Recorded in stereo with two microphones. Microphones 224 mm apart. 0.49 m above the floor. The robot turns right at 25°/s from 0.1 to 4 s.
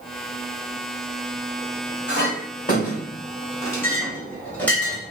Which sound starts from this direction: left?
A clink, at 2.1 s.